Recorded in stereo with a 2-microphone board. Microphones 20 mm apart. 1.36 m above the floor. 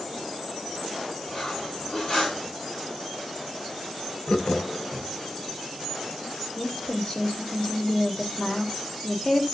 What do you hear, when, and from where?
1.3 s cutlery clinking: 45° left (ahead or behind), 8.5 m
4.3 s laughter: 85° left, 1.4 m
6.6 s a woman speaking: 45° left (ahead or behind), 3 m